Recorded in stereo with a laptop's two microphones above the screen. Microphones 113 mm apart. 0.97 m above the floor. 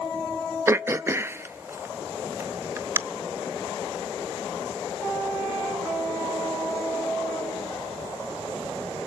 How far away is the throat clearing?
About 0.6 m.